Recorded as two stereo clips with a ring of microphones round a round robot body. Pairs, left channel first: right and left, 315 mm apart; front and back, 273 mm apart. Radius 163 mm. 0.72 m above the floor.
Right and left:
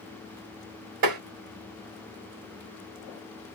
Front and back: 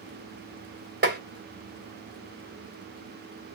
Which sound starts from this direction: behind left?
Tapping, at 1.0 s.